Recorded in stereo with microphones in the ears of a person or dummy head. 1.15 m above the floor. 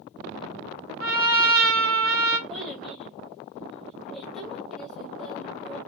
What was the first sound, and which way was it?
A trumpet, 45° right (ahead or behind).